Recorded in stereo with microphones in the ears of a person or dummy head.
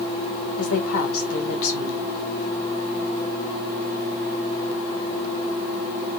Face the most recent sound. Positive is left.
turn(degrees=80)